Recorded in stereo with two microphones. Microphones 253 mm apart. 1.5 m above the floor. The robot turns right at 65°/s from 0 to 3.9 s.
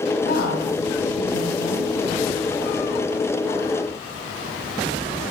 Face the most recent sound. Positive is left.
turn(degrees=-85)